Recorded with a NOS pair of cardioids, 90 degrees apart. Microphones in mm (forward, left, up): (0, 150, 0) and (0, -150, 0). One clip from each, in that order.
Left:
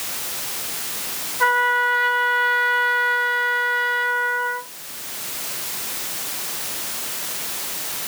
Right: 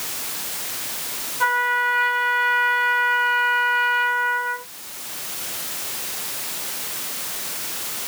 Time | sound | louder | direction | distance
1.4 | a trumpet | left 2 dB | 5° left | 2 m